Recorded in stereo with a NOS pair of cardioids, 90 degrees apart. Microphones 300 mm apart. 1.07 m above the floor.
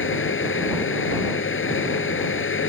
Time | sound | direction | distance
0.0 | a fan | 40° left | ?